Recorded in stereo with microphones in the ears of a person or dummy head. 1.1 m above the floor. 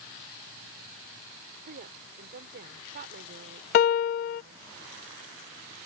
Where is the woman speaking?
50° right (ahead or behind).